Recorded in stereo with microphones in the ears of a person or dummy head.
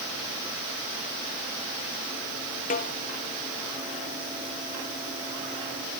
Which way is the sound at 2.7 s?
40° left (ahead or behind).